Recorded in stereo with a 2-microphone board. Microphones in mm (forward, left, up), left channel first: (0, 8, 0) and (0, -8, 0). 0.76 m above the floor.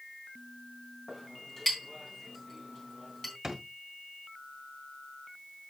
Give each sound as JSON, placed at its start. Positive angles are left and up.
{"t": 1.1, "sound": "a clink", "side_deg": 30, "distance_m": 3.5}
{"t": 3.4, "sound": "a drawer", "side_deg": -35, "distance_m": 2.0}